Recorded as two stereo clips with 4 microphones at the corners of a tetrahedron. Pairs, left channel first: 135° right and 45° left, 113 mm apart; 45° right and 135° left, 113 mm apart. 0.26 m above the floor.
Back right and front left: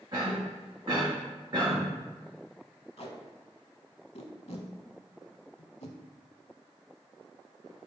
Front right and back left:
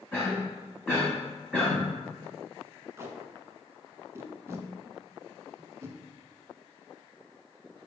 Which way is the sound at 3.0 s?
160° right.